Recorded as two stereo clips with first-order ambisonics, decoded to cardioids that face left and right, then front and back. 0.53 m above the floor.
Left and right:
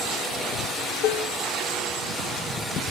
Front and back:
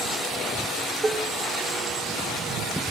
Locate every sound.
1.0 s dishes clattering: 105° left, 0.8 m